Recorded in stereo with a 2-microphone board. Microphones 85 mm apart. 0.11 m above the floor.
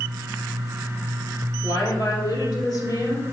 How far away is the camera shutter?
I don't hear a camera shutter.